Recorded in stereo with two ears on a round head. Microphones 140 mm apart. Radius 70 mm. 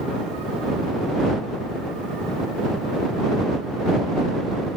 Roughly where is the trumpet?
I don't hear a trumpet.